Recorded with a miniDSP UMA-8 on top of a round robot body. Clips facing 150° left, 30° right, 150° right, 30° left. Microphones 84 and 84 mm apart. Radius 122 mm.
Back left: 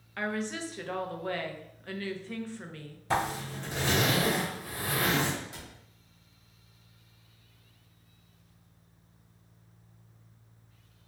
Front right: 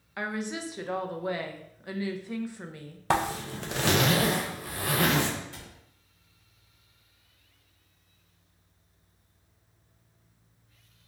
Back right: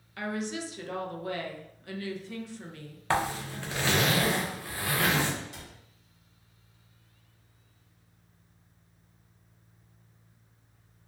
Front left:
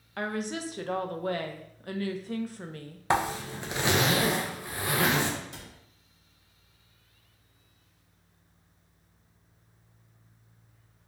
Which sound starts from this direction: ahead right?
A zipper, at 3.1 s.